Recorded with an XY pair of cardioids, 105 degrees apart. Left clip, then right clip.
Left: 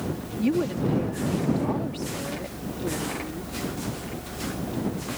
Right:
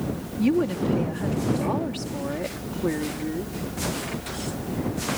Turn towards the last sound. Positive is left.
turn(degrees=-50)